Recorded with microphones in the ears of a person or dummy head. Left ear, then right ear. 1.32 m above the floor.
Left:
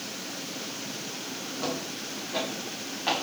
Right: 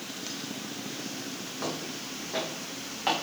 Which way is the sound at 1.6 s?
25° right (ahead or behind).